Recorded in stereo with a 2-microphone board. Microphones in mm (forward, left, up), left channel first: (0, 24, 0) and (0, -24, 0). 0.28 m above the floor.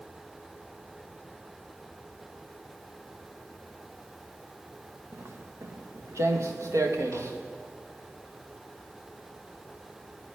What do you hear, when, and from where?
5.1 s footsteps: 60° right (ahead or behind), 3 m; by 7.4 s 75° right (ahead or behind), 3.5 m